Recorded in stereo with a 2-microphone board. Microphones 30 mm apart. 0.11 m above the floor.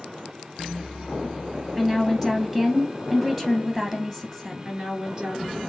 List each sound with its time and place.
1.8 s a woman speaking: 15° right (ahead or behind), 1.9 m
4.7 s a woman speaking: 30° right (ahead or behind), 1.9 m